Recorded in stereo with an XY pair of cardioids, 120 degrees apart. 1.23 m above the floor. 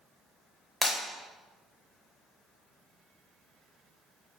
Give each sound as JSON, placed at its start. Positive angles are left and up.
{"t": 0.8, "sound": "breaking glass", "azimuth_deg": 5, "distance_m": 2.0}